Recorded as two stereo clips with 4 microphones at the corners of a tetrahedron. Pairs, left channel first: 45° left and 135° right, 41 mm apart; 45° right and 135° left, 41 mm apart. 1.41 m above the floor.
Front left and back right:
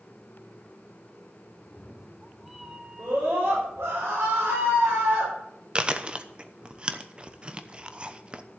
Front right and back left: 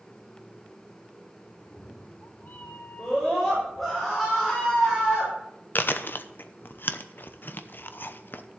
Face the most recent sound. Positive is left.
turn(degrees=-70)